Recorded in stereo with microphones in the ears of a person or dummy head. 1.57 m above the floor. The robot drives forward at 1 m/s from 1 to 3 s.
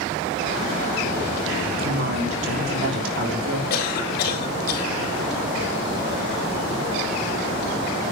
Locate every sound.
1.7 s a woman speaking: 75° right (ahead or behind), 3.5 m; by 3.6 s 80° right, 3.5 m
3.7 s a cough: 60° left (ahead or behind), 3.5 m